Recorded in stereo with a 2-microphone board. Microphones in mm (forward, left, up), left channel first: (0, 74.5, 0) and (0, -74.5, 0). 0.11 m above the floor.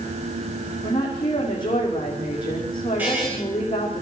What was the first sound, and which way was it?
A woman speaking, 30° left (ahead or behind).